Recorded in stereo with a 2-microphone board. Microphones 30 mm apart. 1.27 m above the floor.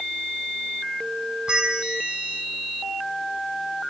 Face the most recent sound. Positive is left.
turn(degrees=-35)  # may be behind; listen again after turning